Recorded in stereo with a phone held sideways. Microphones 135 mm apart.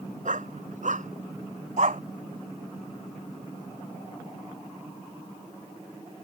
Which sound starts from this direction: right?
A dog barking, at 0.2 s.